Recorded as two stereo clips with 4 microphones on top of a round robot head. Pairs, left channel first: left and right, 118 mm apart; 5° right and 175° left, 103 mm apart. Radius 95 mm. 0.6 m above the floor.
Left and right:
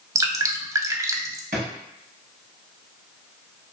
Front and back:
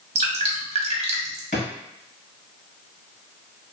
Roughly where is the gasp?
I don't hear a gasp.